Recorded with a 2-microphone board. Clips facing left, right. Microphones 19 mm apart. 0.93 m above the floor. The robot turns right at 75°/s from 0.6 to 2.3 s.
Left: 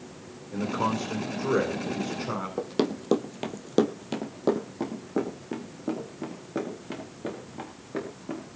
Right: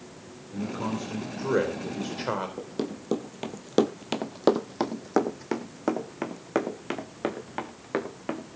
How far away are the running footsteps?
About 1.2 m.